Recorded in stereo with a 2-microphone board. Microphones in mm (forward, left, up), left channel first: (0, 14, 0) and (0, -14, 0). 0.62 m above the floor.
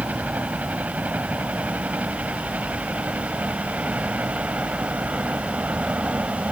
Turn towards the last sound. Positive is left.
turn(degrees=-65)  # may be behind; listen again after turning